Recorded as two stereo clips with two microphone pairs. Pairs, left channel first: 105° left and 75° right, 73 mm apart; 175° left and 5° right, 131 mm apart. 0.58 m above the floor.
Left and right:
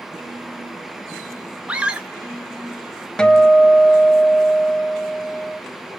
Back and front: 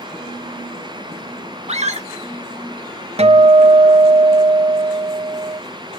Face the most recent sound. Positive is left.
turn(degrees=25)